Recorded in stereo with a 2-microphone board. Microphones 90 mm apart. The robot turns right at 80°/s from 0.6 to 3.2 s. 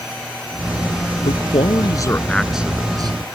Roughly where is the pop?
No pop in this recording.